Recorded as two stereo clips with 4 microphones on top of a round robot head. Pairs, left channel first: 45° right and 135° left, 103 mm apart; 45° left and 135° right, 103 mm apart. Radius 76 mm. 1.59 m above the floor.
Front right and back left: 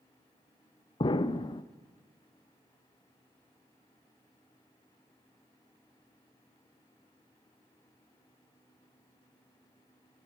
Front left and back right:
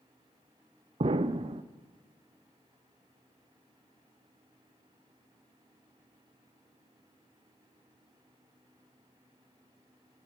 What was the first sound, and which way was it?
An explosion, 90° right.